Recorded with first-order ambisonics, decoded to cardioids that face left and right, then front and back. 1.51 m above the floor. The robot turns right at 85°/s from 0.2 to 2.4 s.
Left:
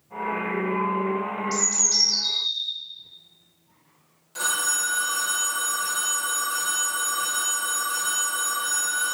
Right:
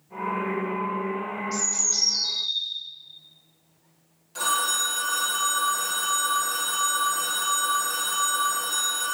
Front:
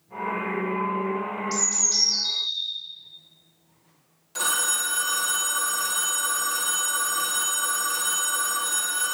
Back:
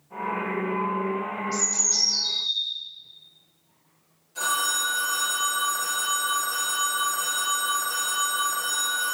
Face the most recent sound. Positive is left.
turn(degrees=5)